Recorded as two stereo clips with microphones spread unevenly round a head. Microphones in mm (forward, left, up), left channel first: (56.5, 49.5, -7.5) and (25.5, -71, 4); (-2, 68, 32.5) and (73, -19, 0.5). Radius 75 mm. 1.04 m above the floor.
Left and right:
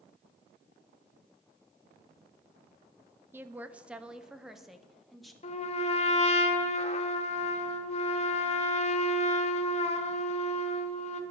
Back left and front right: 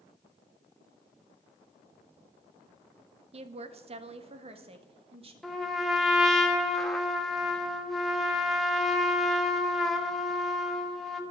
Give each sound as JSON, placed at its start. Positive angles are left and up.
{"t": 3.3, "sound": "a woman speaking", "azimuth_deg": -30, "distance_m": 0.9}
{"t": 5.4, "sound": "a trumpet", "azimuth_deg": 40, "distance_m": 1.5}